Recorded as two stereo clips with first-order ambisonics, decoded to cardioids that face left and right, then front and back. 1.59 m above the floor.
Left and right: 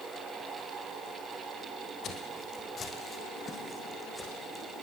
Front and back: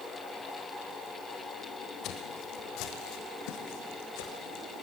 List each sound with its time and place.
2.0 s footsteps: 40° left, 3.5 m; by 4.6 s 5° left, 6 m